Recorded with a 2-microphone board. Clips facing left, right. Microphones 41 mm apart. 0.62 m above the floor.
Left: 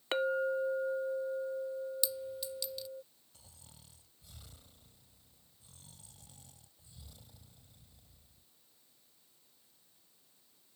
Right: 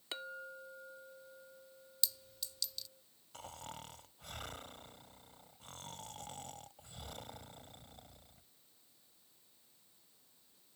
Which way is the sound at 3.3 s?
80° right.